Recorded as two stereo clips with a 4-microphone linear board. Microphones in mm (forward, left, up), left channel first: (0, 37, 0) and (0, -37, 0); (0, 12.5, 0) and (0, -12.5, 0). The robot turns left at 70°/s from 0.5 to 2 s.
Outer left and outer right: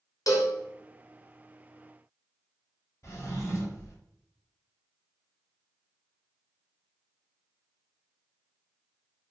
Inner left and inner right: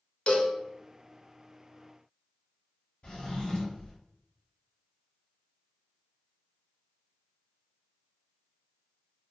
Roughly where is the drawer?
Left.